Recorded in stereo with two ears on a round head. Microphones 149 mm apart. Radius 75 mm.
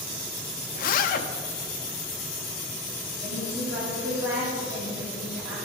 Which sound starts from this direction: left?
A zipper, at 0.8 s.